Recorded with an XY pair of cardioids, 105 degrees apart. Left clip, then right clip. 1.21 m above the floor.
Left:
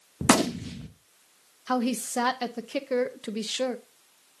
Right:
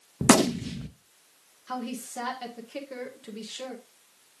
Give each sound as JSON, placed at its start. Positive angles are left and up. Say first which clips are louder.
{"t": 0.2, "sound": "a gunshot", "louder": "right 2 dB", "azimuth_deg": -15, "distance_m": 0.8}
{"t": 1.7, "sound": "a woman speaking", "louder": "left 7 dB", "azimuth_deg": 65, "distance_m": 0.9}